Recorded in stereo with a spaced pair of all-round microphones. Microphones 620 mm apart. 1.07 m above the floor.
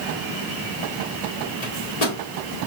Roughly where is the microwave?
Left.